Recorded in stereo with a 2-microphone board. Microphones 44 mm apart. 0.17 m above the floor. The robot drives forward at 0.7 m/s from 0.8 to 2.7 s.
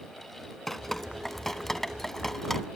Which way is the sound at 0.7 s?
5° left (ahead or behind).